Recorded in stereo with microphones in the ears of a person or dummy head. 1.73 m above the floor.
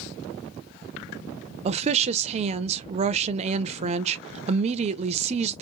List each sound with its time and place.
1.6 s a woman speaking: 40° right (ahead or behind), 0.6 m